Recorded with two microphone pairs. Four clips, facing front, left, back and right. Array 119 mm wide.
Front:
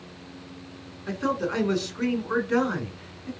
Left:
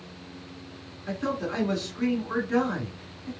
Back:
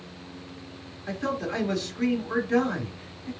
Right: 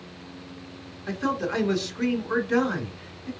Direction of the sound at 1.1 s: 20° right.